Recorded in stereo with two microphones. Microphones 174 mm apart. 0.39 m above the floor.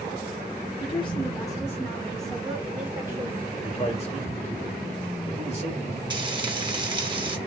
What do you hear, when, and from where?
0.8 s a woman speaking: 30° left (ahead or behind), 1.4 m; by 3.5 s 25° right (ahead or behind), 1.4 m
3.6 s a man speaking: 40° left (ahead or behind), 1.8 m
6.1 s frying: 25° right (ahead or behind), 1.0 m